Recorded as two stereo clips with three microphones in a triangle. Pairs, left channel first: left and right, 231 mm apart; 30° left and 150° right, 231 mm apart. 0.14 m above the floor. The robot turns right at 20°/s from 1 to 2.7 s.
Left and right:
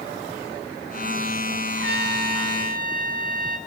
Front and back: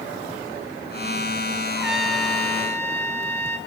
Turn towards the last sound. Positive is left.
turn(degrees=-50)